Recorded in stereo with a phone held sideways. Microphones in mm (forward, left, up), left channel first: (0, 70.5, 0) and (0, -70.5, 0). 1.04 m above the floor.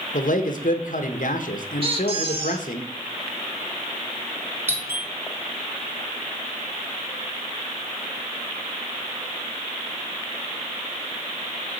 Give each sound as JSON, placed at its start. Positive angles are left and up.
{"t": 0.1, "sound": "a man speaking", "side_deg": 70, "distance_m": 0.9}
{"t": 1.8, "sound": "a squeak", "side_deg": -40, "distance_m": 1.0}
{"t": 4.7, "sound": "a doorbell", "side_deg": -15, "distance_m": 1.0}